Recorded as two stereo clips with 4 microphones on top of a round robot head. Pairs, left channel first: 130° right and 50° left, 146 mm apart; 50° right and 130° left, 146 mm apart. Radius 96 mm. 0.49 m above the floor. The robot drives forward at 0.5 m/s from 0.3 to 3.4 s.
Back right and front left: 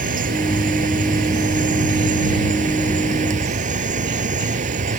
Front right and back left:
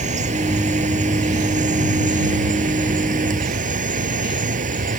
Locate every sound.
0.0 s an insect: 85° left; by 5.0 s 90° left